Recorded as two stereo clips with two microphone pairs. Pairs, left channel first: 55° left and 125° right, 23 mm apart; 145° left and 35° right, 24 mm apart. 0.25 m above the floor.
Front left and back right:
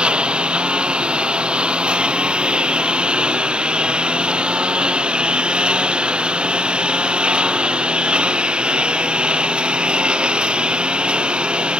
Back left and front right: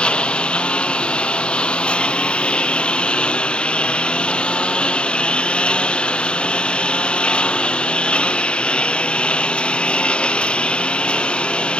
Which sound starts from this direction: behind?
A lawn mower, at 0.0 s.